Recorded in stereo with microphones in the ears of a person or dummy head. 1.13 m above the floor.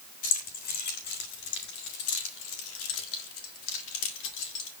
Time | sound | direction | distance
0.2 | keys jangling | 40° left (ahead or behind) | 1.8 m